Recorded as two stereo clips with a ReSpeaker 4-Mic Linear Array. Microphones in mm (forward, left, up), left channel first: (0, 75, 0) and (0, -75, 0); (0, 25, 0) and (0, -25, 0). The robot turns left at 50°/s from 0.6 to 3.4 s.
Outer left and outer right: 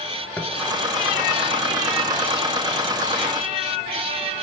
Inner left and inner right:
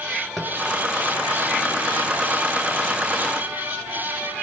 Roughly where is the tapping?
Centre.